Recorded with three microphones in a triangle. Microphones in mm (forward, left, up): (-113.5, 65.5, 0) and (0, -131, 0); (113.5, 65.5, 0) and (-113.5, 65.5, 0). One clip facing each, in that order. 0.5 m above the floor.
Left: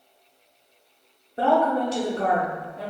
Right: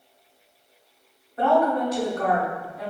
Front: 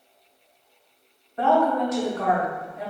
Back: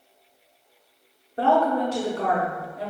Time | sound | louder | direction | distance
1.4 | a woman speaking | even, even | 155° left | 0.7 m